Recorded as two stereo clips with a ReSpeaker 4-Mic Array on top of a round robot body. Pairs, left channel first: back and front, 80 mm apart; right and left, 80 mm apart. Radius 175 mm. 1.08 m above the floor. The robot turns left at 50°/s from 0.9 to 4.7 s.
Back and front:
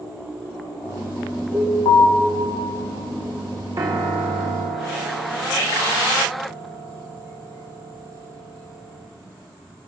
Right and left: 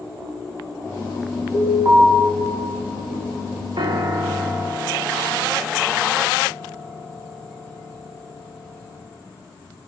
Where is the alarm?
160° left, 6 m; by 2.1 s 135° left, 6 m.